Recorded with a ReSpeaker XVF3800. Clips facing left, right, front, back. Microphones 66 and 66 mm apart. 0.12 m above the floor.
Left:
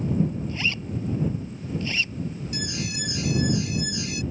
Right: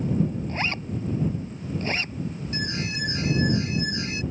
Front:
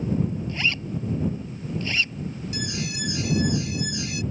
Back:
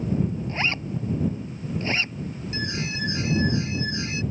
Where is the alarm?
130° right.